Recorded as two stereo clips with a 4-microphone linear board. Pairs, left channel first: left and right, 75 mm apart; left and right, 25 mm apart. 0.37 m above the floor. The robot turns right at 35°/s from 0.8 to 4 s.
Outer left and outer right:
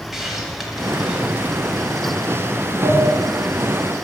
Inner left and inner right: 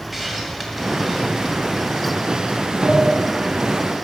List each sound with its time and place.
0.1 s a hiss: 5° right (ahead or behind), 2 m; by 2.1 s 45° right (ahead or behind), 2 m
2.8 s a sliding door: 45° right (ahead or behind), 1.1 m; by 3.1 s 55° right (ahead or behind), 1.1 m